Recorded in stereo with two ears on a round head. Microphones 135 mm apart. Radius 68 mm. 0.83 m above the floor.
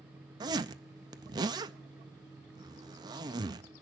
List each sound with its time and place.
0.4 s a zipper: 25° right (ahead or behind), 0.7 m